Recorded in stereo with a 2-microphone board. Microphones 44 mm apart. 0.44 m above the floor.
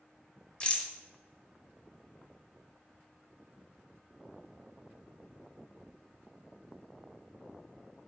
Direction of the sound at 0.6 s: 25° left (ahead or behind).